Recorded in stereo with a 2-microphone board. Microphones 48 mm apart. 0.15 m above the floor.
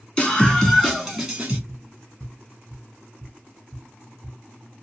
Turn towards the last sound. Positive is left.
turn(degrees=-15)  # may be behind; listen again after turning